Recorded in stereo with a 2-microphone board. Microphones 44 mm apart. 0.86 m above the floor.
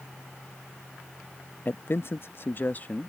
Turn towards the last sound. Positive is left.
turn(degrees=35)  # may be behind; listen again after turning